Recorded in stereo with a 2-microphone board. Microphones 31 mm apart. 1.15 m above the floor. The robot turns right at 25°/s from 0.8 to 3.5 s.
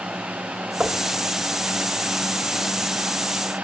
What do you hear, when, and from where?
0.8 s knocking: 80° right, 2.5 m; by 1.1 s 85° right, 2.5 m